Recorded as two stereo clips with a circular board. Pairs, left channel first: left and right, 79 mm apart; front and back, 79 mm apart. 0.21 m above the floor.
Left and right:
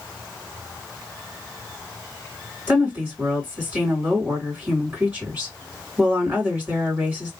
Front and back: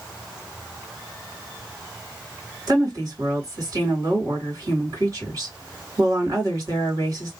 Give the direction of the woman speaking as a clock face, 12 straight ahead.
5 o'clock.